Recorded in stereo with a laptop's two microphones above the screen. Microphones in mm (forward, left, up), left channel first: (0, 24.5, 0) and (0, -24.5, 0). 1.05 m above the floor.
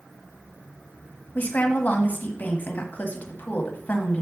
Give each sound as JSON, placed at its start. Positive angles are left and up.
{"t": 1.4, "sound": "a woman speaking", "side_deg": 35, "distance_m": 1.2}